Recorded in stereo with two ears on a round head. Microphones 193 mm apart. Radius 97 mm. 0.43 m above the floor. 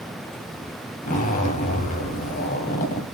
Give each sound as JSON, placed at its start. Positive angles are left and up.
{"t": 1.0, "sound": "a zipper", "side_deg": 40, "distance_m": 1.9}